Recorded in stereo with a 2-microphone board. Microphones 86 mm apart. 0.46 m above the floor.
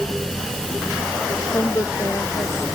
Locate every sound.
1.5 s a woman speaking: 35° left (ahead or behind)